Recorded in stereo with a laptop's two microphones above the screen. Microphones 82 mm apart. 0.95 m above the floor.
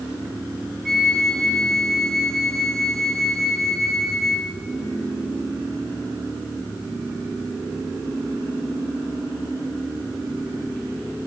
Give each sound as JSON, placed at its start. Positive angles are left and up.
{"t": 0.8, "sound": "a flute", "side_deg": 5, "distance_m": 2.0}